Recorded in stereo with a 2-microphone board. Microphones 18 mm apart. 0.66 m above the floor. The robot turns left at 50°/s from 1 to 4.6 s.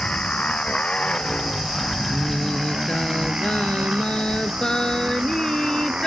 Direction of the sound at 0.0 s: 75° left.